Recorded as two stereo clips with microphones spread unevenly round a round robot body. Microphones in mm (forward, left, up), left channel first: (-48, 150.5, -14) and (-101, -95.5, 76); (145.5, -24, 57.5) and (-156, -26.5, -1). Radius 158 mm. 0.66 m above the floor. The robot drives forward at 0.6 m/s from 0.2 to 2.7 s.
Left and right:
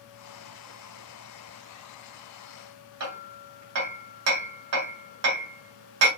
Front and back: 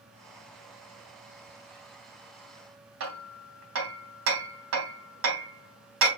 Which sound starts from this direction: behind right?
Hammering, at 3.0 s.